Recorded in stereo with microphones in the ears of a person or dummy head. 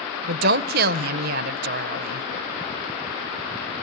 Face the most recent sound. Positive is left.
turn(degrees=-55)  # may be behind; listen again after turning